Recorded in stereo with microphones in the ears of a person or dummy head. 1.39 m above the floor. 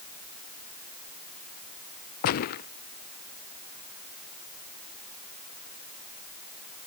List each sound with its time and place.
2.2 s a gunshot: 50° left (ahead or behind)